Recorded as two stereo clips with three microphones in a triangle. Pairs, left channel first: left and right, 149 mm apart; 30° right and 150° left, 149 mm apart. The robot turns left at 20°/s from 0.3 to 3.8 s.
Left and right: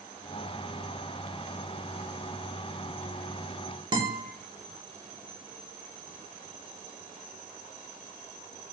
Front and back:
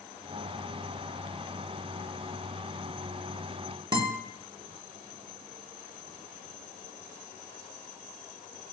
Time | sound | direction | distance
3.9 | a guitar | 150° right | 0.6 m